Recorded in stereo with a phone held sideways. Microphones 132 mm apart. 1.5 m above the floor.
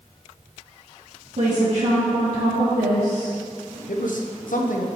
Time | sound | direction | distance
1.4 | a woman speaking | 80° right | 2.5 m
3.9 | a man speaking | 80° left | 0.9 m